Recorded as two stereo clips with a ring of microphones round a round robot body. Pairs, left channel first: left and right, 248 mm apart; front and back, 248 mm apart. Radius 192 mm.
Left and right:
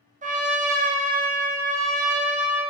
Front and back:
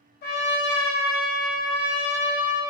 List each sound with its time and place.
0.2 s a trumpet: 35° right, 0.6 m